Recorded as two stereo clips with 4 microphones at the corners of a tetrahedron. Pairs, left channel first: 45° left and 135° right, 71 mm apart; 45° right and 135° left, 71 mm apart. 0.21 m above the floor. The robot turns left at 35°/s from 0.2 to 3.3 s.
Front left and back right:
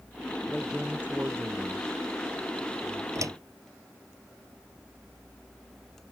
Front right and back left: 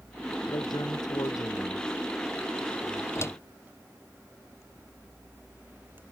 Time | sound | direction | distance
0.5 | a man speaking | 45° right | ?
3.1 | a door slam | 95° right | ?